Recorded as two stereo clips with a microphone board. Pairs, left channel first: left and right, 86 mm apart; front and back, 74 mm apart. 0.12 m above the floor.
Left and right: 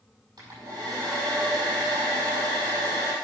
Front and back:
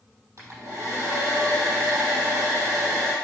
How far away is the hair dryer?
About 5 m.